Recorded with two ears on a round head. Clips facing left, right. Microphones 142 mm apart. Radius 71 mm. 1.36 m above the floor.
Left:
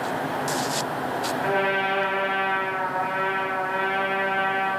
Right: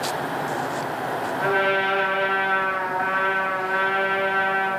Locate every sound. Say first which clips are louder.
1.4 s a trumpet: right 2 dB; 75° right (ahead or behind), 3 m